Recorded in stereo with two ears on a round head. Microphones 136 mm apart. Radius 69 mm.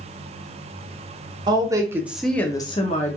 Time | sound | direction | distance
1.5 | a woman speaking | 30° right (ahead or behind) | 0.8 m